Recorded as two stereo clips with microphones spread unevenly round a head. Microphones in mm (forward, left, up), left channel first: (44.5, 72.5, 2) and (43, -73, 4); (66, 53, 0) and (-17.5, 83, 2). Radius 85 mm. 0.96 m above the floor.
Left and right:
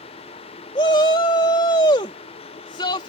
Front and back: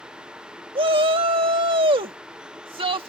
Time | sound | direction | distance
0.8 | a shout | 155° left | ?